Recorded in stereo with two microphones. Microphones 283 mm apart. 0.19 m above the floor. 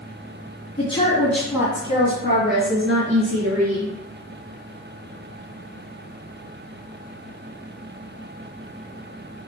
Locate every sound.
0.8 s a woman speaking: 20° left (ahead or behind), 1.9 m; by 3.9 s 60° right (ahead or behind), 3 m